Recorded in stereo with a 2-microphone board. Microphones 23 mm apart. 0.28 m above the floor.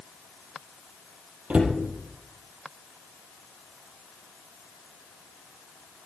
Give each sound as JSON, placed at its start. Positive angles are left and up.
{"t": 1.5, "sound": "a cupboard door", "side_deg": -75, "distance_m": 3.0}